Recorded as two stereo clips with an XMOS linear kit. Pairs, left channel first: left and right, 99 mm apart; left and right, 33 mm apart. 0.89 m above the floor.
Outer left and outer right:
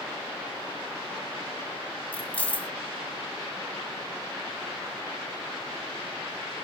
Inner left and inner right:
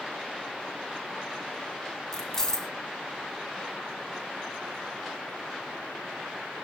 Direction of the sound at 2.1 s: 15° left (ahead or behind).